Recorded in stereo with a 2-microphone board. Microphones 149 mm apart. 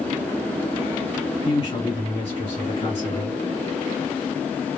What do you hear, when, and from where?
1.4 s a man speaking: 45° left (ahead or behind), 2 m